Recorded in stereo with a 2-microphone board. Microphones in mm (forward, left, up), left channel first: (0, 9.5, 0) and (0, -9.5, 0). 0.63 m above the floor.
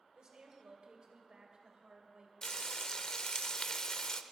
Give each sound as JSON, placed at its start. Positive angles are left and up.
{"t": 0.1, "sound": "a woman speaking", "side_deg": -50, "distance_m": 2.5}
{"t": 2.4, "sound": "frying", "side_deg": 40, "distance_m": 0.5}